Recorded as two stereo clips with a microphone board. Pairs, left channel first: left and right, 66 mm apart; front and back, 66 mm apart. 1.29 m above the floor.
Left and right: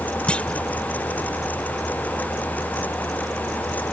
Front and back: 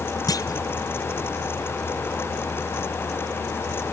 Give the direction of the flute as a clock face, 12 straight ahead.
I don't hear a flute.